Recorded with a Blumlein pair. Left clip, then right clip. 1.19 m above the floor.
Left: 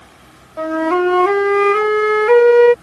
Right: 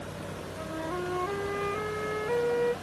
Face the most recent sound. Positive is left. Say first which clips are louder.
# left 19 dB
turn(degrees=40)